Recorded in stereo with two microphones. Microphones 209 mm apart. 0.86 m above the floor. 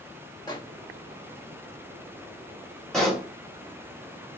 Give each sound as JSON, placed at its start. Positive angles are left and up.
{"t": 0.5, "sound": "a microwave", "side_deg": 20, "distance_m": 1.4}
{"t": 2.9, "sound": "a pop", "side_deg": 0, "distance_m": 1.6}